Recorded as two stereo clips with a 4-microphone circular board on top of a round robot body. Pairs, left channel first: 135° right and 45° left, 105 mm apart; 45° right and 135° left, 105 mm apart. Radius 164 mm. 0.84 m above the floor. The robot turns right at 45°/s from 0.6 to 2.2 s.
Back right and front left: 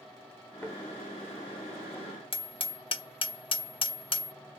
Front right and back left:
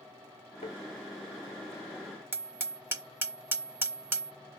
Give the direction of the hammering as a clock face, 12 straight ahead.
5 o'clock.